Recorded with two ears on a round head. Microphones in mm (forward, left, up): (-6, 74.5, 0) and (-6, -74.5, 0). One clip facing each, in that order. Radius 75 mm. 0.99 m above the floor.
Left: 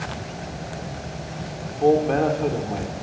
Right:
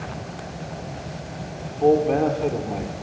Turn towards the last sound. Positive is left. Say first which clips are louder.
# even
turn(degrees=-5)  # may be behind; listen again after turning